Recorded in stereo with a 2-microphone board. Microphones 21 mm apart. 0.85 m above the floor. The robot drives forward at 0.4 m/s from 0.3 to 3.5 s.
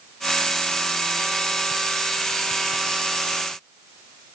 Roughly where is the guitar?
No guitar in this recording.